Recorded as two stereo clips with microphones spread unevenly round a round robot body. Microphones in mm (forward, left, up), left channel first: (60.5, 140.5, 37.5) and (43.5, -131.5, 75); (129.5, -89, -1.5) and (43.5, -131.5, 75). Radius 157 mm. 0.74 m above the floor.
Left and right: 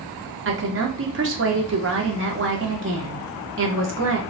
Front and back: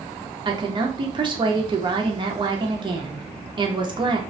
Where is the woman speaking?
70° right, 0.9 m.